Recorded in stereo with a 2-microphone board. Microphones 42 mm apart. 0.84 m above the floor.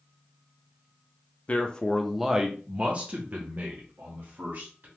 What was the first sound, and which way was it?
A man speaking, 35° left (ahead or behind).